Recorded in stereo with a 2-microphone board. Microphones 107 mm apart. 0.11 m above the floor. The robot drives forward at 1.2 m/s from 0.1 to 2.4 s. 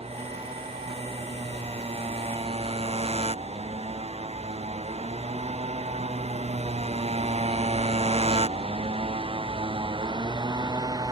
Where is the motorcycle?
70° right (ahead or behind); by 11.1 s 35° right (ahead or behind).